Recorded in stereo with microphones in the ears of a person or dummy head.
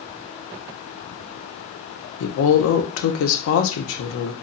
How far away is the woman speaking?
About 0.8 m.